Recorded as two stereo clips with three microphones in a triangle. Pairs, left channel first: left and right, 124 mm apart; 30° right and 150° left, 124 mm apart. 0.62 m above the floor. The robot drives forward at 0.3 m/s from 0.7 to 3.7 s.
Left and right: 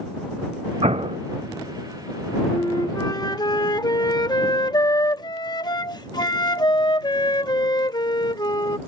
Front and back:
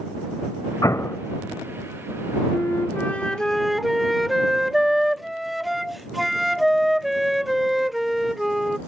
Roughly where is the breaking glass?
I don't hear breaking glass.